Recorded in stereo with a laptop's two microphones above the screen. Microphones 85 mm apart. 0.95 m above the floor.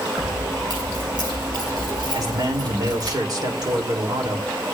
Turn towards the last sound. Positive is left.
turn(degrees=-50)  # may be behind; listen again after turning